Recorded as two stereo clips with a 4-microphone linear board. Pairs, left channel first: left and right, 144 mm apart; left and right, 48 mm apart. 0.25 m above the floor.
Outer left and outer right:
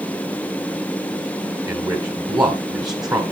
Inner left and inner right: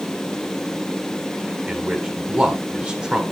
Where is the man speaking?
25° right (ahead or behind), 1.7 m.